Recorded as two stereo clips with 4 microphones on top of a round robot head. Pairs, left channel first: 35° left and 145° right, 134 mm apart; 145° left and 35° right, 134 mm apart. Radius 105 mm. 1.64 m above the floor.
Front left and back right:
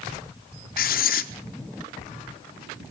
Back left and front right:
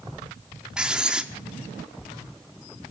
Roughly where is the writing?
Ahead left.